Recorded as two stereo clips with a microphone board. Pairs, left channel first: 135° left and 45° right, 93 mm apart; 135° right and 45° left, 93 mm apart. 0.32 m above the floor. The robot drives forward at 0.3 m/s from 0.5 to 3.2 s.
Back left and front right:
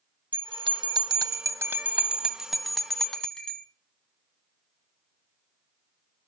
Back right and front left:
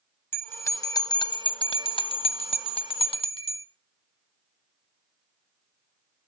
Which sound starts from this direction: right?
A bell, at 0.3 s.